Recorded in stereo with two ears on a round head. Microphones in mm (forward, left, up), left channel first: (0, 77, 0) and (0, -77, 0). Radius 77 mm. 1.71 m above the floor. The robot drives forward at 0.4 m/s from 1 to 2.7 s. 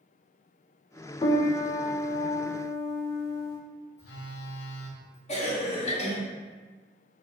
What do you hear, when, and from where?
1.2 s a piano: 25° left (ahead or behind), 0.5 m; by 3.6 s 15° left (ahead or behind), 0.8 m
4.0 s a phone buzzing: 70° left (ahead or behind), 1.1 m
5.3 s a cough: 40° left (ahead or behind), 1.2 m